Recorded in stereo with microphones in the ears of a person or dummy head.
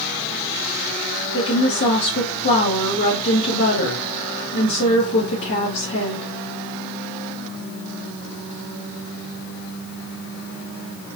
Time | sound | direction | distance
1.3 | a woman speaking | 60° left (ahead or behind) | 1.8 m